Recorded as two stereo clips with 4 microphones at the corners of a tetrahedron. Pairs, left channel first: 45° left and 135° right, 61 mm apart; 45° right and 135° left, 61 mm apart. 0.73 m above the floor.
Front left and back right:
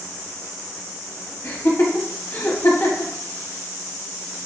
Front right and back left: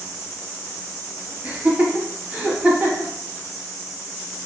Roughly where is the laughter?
Left.